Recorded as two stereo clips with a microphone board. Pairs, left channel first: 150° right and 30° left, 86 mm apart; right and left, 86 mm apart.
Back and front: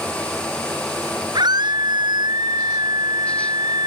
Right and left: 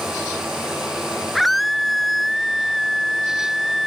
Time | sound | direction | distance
1.4 | a scream | straight ahead | ?